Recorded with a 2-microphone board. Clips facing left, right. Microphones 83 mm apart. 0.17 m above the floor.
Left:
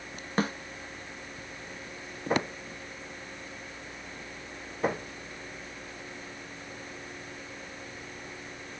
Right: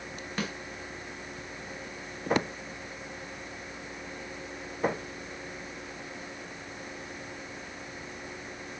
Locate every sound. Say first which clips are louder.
0.4 s a snare drum: left 6 dB; 35° left (ahead or behind), 1.0 m